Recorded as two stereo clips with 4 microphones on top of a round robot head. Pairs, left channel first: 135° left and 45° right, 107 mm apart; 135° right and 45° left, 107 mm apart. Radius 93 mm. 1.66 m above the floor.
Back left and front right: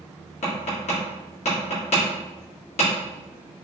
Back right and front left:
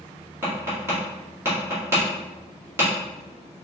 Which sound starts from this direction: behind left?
Tapping, at 0.4 s.